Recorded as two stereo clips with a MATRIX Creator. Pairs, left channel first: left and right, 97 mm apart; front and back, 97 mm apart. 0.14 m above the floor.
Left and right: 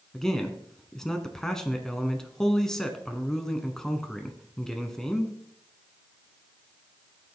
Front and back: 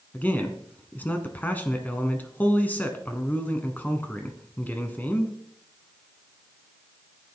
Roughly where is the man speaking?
Ahead.